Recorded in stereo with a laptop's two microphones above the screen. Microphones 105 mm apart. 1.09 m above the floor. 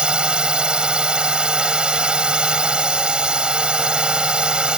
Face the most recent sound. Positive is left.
turn(degrees=-10)  # may be behind; listen again after turning